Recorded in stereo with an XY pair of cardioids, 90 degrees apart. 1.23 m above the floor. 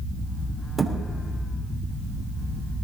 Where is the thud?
20° right, 3 m.